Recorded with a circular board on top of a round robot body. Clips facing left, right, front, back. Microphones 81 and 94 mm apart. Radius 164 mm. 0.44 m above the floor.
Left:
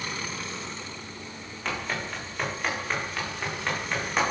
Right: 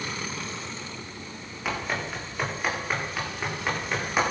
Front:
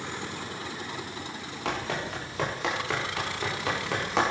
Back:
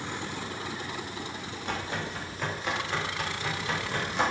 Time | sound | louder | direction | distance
1.6 | running footsteps | right 2 dB, front 3 dB | 10° right | 8.5 m